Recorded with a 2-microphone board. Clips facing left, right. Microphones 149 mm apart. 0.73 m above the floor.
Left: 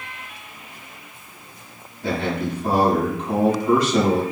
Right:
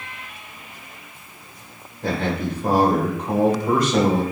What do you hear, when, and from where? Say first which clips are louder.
2.0 s a man speaking: even; 50° right (ahead or behind), 2 m